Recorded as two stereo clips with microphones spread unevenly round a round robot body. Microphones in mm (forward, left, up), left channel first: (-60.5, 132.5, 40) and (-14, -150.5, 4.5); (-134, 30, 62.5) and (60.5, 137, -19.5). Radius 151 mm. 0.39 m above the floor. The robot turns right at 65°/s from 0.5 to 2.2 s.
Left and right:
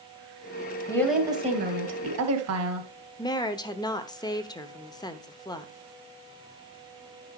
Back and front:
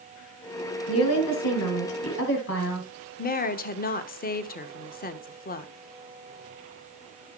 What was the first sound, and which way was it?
A woman speaking, straight behind.